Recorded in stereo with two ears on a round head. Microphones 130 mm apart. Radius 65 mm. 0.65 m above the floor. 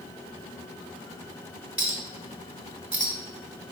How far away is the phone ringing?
I don't hear a phone ringing.